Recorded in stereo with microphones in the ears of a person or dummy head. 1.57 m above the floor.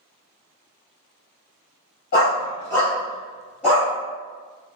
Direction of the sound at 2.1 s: 25° left (ahead or behind).